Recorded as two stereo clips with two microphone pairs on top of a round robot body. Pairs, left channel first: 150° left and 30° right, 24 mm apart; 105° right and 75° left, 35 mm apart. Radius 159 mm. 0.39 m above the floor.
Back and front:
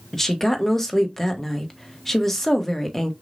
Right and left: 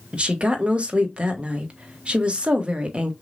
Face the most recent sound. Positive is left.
turn(degrees=80)